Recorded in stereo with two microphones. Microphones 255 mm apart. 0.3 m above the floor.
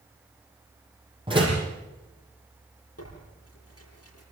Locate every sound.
1.3 s a door slam: 20° right (ahead or behind), 9 m
3.0 s tearing paper: 65° left (ahead or behind), 9 m